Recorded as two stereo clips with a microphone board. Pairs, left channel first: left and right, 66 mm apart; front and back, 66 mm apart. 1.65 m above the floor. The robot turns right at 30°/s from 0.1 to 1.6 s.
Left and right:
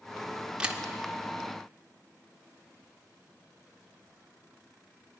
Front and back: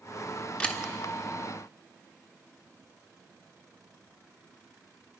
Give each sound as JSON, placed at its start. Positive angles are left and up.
{"t": 0.6, "sound": "a camera shutter", "azimuth_deg": -45, "distance_m": 1.3}